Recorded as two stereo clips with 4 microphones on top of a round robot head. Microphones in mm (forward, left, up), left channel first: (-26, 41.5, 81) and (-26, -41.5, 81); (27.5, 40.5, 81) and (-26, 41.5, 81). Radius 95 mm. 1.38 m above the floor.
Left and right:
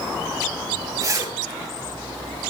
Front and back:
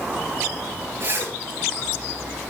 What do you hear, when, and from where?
1.0 s a zipper: 140° right, 7 m